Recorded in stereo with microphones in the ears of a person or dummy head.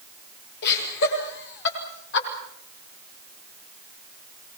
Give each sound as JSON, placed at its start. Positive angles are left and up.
{"t": 0.6, "sound": "laughter", "side_deg": 60, "distance_m": 6.5}